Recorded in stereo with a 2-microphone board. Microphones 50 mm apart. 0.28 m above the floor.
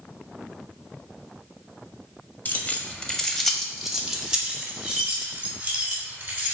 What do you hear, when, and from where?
2.5 s keys jangling: 35° left (ahead or behind), 0.9 m; by 6.5 s 30° right (ahead or behind), 2.5 m